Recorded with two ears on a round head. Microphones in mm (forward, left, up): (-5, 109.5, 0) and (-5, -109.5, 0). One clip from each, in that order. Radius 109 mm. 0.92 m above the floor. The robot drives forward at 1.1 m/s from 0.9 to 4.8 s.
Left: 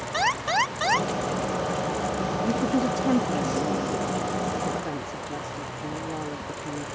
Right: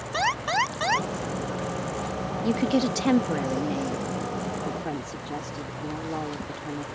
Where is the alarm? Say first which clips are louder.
Left 1 dB; 5° left (ahead or behind).